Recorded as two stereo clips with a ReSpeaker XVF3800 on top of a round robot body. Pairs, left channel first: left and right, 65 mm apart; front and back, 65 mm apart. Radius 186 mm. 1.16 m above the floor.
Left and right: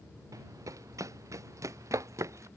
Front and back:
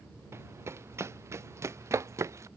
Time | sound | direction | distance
0.3 | running footsteps | 130° right | ?